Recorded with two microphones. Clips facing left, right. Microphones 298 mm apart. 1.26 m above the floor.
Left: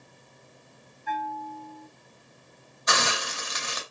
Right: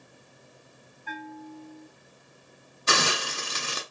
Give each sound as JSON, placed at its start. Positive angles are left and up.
{"t": 1.1, "sound": "a bell", "side_deg": 45, "distance_m": 3.0}
{"t": 2.9, "sound": "a hiss", "side_deg": -35, "distance_m": 0.7}